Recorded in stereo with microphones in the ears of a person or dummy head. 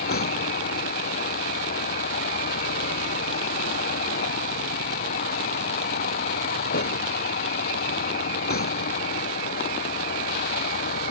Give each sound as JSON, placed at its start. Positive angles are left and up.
{"t": 0.0, "sound": "a vehicle", "side_deg": 50}